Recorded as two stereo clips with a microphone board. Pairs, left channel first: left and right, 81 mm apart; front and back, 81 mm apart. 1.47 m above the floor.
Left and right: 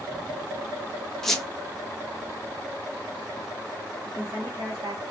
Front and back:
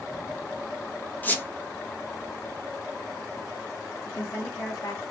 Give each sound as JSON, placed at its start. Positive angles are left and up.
{"t": 1.2, "sound": "a squeak", "azimuth_deg": 15, "distance_m": 0.6}
{"t": 4.0, "sound": "a woman speaking", "azimuth_deg": -45, "distance_m": 0.9}